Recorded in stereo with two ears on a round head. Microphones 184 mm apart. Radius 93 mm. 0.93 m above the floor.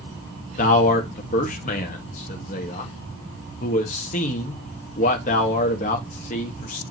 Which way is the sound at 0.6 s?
35° left (ahead or behind).